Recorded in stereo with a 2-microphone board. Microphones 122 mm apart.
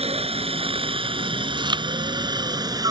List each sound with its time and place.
0.0 s a helicopter: 55° right (ahead or behind); by 2.9 s 30° right (ahead or behind)
1.6 s chewing: 40° right (ahead or behind)